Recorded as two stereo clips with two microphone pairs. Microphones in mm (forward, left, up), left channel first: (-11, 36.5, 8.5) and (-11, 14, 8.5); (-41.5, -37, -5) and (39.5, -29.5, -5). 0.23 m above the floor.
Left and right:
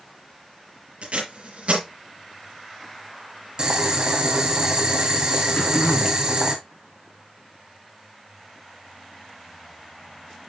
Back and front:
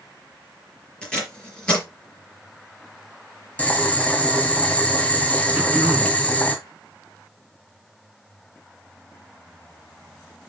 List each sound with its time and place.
1.0 s tape being pulled: 95° right, 4.5 m
3.6 s boiling: 110° right, 2 m
5.5 s throat clearing: 75° left, 1.3 m